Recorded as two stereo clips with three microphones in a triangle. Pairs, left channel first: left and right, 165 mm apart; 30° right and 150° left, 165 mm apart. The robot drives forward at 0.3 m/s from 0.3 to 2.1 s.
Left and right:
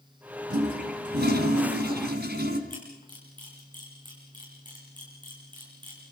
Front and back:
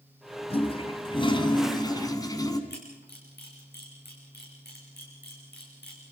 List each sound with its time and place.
0.5 s a toilet flushing: 85° right, 2 m; by 2.6 s 100° right, 2 m
2.7 s a camera shutter: 25° right, 8 m